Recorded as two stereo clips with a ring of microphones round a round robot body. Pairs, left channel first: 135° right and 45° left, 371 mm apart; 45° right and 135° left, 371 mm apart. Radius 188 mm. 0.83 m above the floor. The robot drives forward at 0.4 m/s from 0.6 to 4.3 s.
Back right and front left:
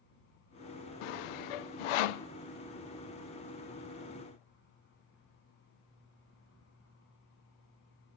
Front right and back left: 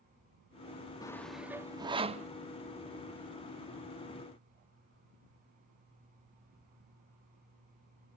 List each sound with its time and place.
1.0 s sawing: 125° right, 0.6 m; by 2.3 s 150° right, 0.9 m